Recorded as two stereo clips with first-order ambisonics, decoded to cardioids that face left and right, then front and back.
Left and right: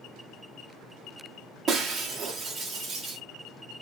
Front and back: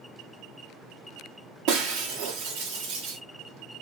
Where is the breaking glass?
160° right, 1.4 m.